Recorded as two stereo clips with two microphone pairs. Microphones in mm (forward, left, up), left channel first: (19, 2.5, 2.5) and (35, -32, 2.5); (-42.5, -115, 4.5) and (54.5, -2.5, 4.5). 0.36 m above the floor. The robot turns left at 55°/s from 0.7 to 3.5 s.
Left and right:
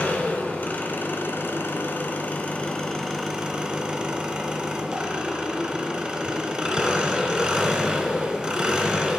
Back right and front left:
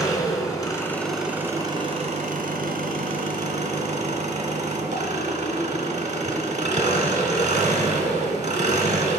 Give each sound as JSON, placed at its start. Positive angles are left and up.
{"t": 0.0, "sound": "an engine running", "azimuth_deg": 165, "distance_m": 1.2}